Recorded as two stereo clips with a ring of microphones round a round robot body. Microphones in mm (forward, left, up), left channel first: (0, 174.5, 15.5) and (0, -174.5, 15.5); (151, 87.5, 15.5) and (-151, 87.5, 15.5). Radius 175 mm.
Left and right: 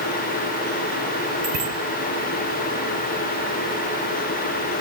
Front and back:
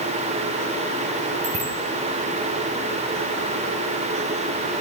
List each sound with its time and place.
1.4 s a bicycle bell: 115° right, 5 m